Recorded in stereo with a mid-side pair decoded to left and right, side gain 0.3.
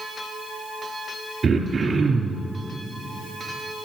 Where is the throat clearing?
65° right, 3.5 m.